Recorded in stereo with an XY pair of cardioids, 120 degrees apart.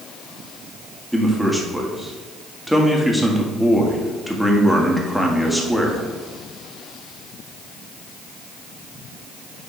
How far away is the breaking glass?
No breaking glass in this recording.